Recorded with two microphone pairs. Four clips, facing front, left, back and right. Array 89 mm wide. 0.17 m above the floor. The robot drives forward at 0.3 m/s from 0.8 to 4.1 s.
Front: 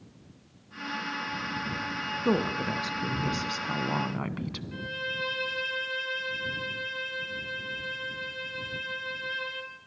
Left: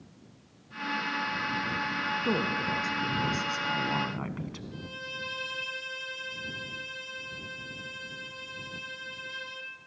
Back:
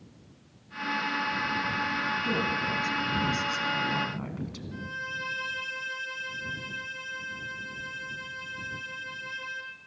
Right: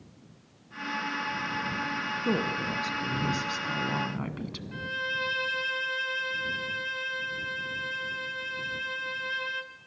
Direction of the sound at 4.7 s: 85° right.